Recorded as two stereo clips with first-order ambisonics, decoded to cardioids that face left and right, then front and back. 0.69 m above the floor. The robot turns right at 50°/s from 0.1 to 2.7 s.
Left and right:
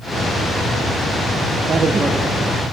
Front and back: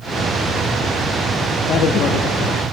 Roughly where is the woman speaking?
Ahead right.